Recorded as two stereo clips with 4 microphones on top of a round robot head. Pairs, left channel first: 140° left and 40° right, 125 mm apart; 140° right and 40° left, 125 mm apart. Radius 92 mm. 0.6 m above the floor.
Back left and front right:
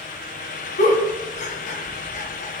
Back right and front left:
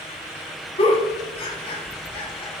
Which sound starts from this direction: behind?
A giggle, at 0.8 s.